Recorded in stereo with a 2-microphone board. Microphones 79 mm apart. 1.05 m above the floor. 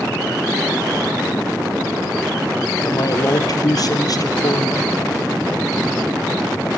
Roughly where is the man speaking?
Left.